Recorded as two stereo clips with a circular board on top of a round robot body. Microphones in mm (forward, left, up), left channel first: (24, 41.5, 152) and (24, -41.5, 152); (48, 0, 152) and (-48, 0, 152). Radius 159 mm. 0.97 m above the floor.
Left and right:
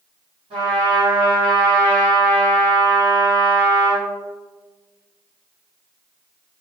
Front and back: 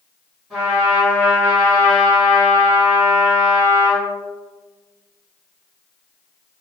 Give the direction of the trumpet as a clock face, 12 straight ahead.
3 o'clock.